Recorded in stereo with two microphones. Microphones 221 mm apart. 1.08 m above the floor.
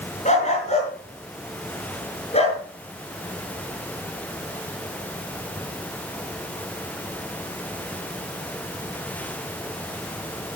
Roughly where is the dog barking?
Left.